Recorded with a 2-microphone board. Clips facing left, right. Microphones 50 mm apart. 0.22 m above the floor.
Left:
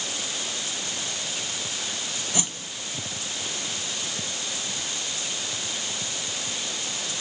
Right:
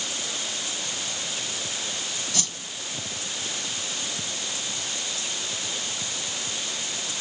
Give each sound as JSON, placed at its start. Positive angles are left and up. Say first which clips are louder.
{"t": 2.3, "sound": "a whoosh", "louder": "left 3 dB", "side_deg": 20, "distance_m": 1.1}